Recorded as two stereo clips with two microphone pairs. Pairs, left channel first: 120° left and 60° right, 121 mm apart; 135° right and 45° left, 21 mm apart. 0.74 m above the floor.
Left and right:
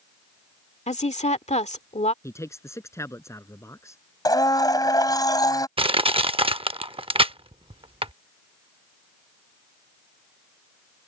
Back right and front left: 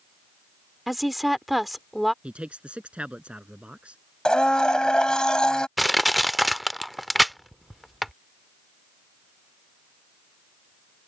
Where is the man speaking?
55° left.